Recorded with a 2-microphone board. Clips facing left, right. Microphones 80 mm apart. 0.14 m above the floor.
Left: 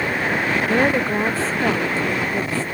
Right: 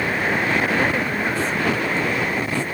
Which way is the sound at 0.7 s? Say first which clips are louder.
Left 3 dB; 35° left (ahead or behind).